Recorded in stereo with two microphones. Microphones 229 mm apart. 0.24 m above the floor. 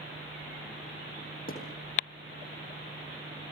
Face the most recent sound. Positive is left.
turn(degrees=40)  # may be behind; listen again after turning